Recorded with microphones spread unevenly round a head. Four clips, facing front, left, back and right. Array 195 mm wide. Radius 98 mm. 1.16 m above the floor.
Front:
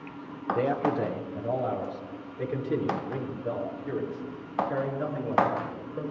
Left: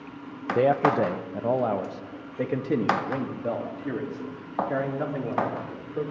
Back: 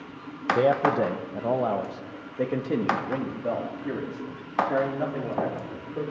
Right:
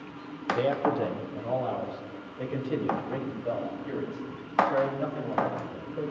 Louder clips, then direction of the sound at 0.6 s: Left 6 dB, back 5 dB; 115° left.